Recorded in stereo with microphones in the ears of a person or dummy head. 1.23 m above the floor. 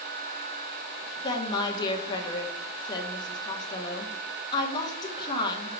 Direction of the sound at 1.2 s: 20° left (ahead or behind).